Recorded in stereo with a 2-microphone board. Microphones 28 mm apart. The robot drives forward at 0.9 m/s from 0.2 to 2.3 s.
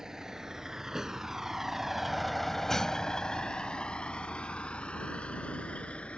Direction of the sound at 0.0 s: 20° right (ahead or behind).